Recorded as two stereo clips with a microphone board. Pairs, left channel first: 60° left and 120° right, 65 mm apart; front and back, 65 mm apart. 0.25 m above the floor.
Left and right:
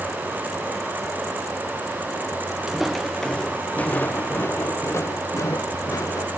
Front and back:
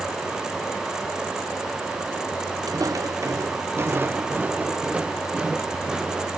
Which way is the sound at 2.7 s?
155° left.